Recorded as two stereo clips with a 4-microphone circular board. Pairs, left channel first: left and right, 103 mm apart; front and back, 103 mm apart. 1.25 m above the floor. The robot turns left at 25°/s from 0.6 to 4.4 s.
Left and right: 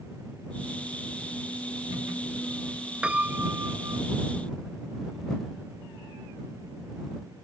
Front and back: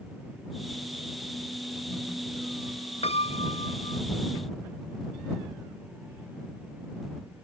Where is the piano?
10° right; by 4.0 s 35° right.